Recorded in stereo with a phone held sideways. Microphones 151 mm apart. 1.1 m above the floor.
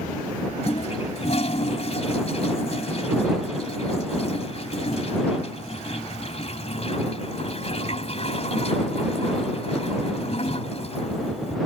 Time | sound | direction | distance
0.6 | a toilet flushing | 45° left (ahead or behind) | ?